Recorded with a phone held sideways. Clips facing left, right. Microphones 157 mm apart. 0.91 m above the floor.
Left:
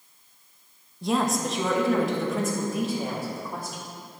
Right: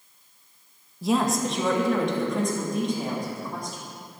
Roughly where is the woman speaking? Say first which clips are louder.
Right 2 dB; centre.